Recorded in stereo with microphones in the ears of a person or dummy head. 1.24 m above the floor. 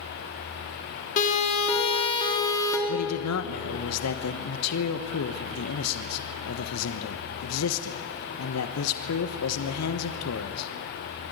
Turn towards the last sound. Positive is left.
turn(degrees=75)  # may be behind; listen again after turning